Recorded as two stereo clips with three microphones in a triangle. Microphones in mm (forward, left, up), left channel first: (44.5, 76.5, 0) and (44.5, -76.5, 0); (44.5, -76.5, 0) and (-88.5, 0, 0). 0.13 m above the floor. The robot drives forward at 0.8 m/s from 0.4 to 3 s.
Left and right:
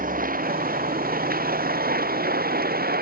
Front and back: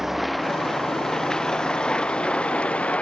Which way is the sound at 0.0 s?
120° right.